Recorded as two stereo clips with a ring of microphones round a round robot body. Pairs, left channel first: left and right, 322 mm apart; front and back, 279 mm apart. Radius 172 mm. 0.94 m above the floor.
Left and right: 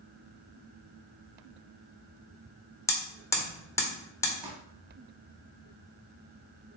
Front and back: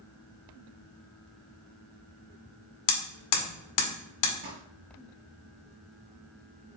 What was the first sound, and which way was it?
Hammering, 10° left.